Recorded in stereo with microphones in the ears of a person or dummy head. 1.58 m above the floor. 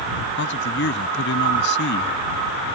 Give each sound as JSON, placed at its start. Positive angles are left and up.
{"t": 0.4, "sound": "a man speaking", "side_deg": 60}